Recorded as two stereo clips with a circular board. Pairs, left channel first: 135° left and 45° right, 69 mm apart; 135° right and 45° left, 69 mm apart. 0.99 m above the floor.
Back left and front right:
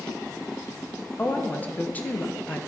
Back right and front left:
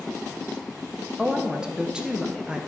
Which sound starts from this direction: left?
A woman speaking, at 1.2 s.